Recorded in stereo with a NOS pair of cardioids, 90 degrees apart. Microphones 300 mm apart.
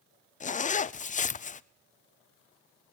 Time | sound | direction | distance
0.4 | a zipper | 25° left | 0.6 m